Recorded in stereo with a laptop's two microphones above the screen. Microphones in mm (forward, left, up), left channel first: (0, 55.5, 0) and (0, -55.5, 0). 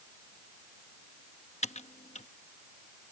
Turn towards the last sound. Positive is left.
turn(degrees=75)  # may be behind; listen again after turning